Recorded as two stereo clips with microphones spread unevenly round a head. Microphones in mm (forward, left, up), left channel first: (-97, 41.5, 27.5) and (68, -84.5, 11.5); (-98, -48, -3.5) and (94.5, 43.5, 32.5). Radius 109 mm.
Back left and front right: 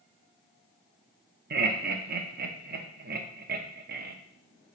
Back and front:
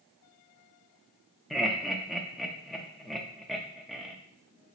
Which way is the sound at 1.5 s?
70° right.